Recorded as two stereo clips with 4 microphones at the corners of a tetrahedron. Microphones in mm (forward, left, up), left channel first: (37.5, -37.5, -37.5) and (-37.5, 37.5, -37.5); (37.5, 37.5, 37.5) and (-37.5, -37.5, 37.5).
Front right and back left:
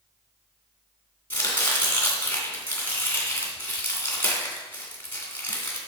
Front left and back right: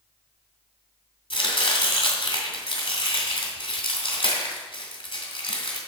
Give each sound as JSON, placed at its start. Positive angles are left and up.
{"t": 1.3, "sound": "chopping", "azimuth_deg": 25, "distance_m": 2.5}